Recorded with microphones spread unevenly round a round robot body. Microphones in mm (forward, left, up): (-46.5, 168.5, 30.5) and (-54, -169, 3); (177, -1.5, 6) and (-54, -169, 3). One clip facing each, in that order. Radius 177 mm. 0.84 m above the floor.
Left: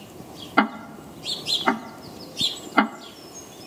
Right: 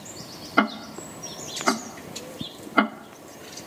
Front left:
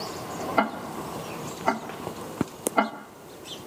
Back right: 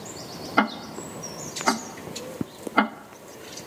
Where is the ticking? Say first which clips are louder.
Left 1 dB, back right 4 dB; 175° left, 0.7 m.